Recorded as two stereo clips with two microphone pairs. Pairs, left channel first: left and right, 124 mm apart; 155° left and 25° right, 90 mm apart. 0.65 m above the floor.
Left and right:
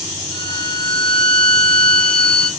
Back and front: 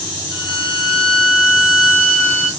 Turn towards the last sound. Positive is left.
turn(degrees=130)